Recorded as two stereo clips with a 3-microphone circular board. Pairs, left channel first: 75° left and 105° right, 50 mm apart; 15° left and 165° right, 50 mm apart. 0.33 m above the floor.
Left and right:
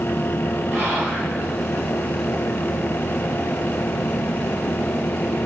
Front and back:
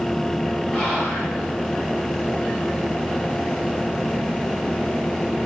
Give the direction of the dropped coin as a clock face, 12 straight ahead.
I don't hear a dropped coin.